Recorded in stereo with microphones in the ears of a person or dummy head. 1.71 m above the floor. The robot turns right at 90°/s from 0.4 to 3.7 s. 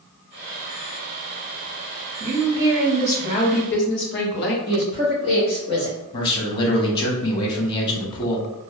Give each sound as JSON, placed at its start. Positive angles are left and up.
{"t": 2.2, "sound": "a woman speaking", "azimuth_deg": -60, "distance_m": 0.7}
{"t": 4.7, "sound": "a woman speaking", "side_deg": 25, "distance_m": 0.8}
{"t": 6.1, "sound": "a man speaking", "side_deg": 25, "distance_m": 0.6}